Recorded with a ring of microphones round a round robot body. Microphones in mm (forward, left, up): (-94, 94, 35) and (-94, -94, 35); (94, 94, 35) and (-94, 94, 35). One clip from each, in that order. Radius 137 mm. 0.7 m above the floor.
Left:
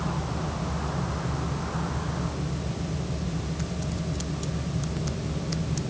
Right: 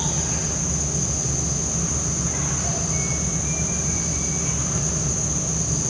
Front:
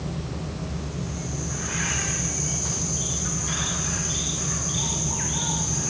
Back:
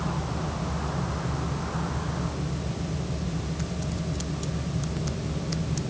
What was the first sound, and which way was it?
Only background noise.